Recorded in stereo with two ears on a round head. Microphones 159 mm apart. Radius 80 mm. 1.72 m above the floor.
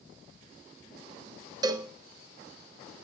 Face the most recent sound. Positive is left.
turn(degrees=-25)  # may be behind; listen again after turning